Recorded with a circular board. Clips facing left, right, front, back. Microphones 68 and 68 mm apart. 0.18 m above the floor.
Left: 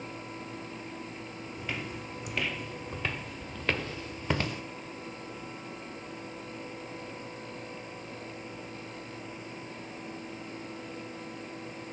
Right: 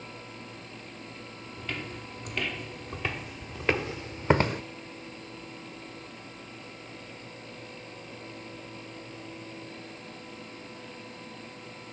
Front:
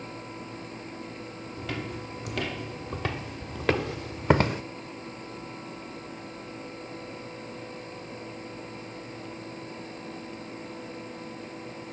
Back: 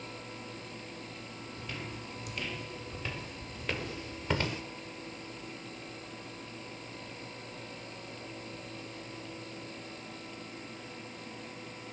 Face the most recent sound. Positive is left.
turn(degrees=-45)